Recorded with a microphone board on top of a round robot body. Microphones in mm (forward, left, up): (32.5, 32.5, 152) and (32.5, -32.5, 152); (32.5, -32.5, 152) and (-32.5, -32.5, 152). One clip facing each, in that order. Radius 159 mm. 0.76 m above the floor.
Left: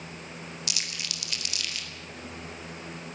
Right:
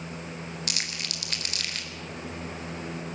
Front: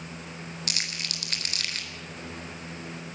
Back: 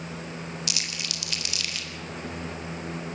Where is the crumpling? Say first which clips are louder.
Right 2 dB, even; 45° right, 4 m.